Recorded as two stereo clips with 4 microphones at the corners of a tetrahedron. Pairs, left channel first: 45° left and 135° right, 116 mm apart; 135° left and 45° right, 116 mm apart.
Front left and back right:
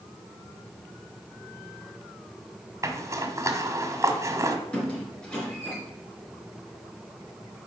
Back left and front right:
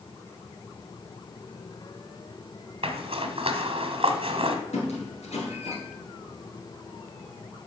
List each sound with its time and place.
2.8 s a zipper: 75° right, 1.2 m
4.7 s a squeak: 125° left, 3 m